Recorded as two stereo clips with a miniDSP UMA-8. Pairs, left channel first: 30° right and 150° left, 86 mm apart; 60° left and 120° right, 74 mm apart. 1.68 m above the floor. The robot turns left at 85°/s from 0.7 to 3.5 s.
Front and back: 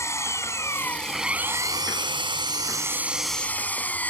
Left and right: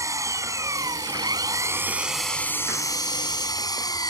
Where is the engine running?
80° right; by 4.1 s 40° left.